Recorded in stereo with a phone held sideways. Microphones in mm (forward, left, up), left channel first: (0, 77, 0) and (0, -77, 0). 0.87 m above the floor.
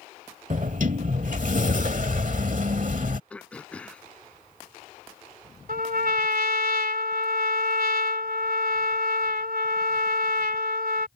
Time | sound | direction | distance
0.5 | a sliding door | 55° right (ahead or behind) | ?
3.3 | throat clearing | 5° left (ahead or behind) | ?
5.7 | a trumpet | 70° right (ahead or behind) | ?